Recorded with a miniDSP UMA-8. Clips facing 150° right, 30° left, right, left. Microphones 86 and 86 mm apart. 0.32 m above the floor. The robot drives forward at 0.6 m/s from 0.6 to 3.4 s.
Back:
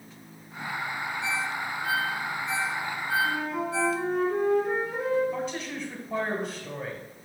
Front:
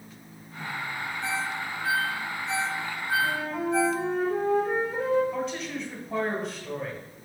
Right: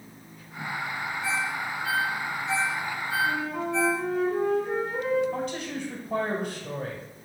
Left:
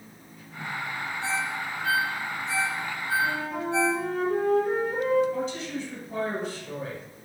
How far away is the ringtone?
About 4 m.